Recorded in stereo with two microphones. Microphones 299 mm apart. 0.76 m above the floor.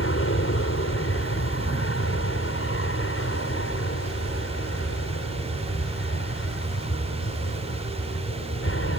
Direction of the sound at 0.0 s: 45° left (ahead or behind).